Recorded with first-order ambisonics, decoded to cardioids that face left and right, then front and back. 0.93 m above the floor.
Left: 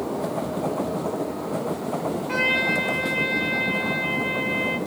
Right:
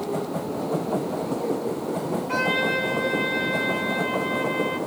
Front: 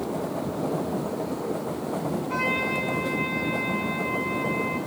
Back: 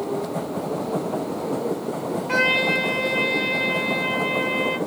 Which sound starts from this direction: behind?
A trumpet, at 2.3 s.